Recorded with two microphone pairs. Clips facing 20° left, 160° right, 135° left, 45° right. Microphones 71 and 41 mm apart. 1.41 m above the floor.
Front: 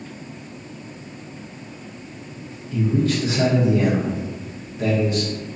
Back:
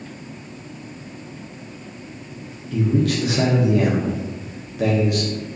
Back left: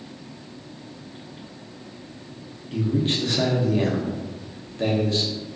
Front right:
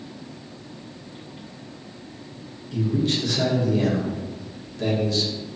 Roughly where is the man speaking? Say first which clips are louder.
Back 1 dB, even; behind.